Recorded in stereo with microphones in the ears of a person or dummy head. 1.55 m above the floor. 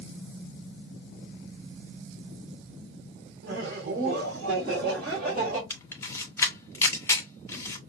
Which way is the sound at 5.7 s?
20° left (ahead or behind).